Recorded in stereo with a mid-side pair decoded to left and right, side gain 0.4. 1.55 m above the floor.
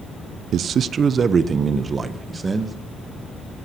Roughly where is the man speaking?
Right.